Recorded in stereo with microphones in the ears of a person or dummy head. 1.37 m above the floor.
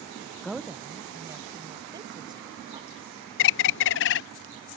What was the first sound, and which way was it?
A woman speaking, centre (ahead or behind).